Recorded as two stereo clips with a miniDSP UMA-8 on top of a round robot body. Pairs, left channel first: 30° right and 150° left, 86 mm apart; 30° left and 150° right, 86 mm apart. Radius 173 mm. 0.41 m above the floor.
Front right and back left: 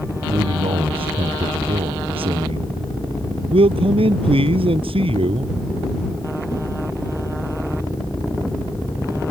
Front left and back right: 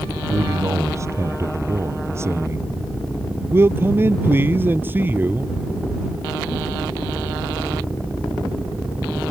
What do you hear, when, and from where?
0.3 s a man speaking: 155° left; by 5.5 s 140° left